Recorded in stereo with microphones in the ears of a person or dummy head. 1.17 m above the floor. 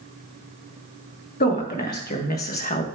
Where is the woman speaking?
40° left (ahead or behind), 1.9 m; by 2.9 s 30° left (ahead or behind), 1.0 m.